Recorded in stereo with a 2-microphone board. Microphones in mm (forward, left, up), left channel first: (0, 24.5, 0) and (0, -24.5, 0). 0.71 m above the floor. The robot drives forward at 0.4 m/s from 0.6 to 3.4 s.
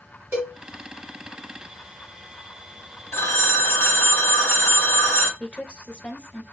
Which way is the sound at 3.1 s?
55° left (ahead or behind).